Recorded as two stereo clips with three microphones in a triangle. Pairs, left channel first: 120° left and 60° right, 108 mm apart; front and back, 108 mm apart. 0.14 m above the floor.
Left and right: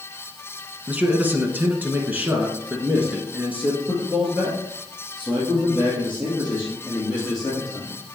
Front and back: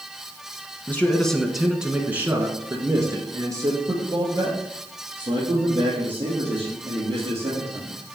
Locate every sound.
0.9 s a man speaking: 30° right, 1.0 m; by 8.0 s 140° right, 4 m